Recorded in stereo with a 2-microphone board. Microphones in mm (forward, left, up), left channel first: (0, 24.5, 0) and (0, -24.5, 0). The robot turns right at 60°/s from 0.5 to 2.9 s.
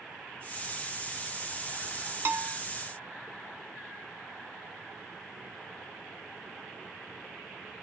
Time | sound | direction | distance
2.2 | a bell | 50° right (ahead or behind) | 0.8 m